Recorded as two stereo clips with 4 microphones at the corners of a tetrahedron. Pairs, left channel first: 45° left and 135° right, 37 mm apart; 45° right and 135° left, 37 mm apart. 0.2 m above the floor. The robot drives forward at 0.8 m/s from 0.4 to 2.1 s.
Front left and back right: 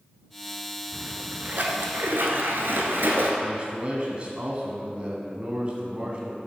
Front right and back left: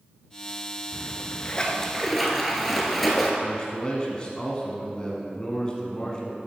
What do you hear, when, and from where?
0.9 s a splash: 65° right, 0.8 m; by 3.3 s 130° right, 1.0 m
3.4 s a man speaking: 95° right, 1.4 m